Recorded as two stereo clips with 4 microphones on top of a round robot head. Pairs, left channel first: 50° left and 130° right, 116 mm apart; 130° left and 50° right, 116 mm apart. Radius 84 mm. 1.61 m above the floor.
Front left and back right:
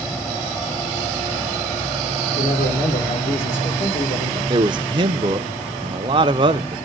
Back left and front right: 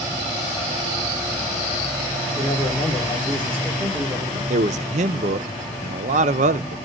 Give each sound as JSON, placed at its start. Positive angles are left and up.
{"t": 2.4, "sound": "a man speaking", "azimuth_deg": 25, "distance_m": 6.0}
{"t": 4.5, "sound": "a man speaking", "azimuth_deg": -75, "distance_m": 0.7}